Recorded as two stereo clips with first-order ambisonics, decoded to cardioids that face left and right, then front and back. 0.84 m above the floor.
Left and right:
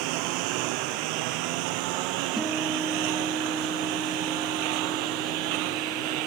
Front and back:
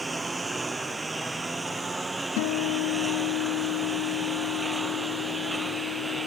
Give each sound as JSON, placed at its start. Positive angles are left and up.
{"t": 0.0, "sound": "a lawn mower", "azimuth_deg": -100}
{"t": 2.4, "sound": "a guitar", "azimuth_deg": -5}